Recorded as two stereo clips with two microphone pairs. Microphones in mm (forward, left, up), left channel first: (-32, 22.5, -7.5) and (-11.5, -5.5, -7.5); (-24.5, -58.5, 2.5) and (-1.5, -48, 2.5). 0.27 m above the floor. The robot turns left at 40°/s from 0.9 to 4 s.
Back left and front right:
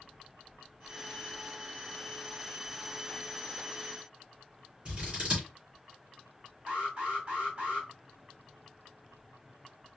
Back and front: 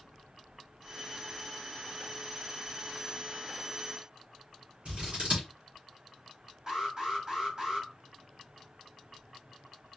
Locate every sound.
4.8 s scissors: 10° left, 2.5 m
6.7 s an alarm: 15° right, 2.5 m